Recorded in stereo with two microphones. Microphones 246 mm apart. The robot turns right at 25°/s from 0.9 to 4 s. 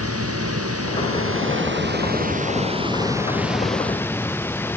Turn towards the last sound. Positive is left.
turn(degrees=10)